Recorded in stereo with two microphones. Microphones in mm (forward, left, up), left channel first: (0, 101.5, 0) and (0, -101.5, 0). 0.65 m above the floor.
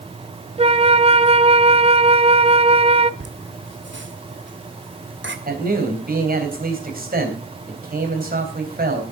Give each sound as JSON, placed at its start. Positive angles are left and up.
{"t": 0.6, "sound": "a flute", "side_deg": -30, "distance_m": 0.5}
{"t": 3.2, "sound": "laughter", "side_deg": -65, "distance_m": 1.7}
{"t": 5.5, "sound": "a man speaking", "side_deg": -45, "distance_m": 3.5}